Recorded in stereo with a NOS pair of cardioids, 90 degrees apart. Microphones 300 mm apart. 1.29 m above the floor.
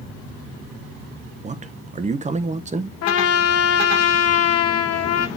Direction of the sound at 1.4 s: 25° right.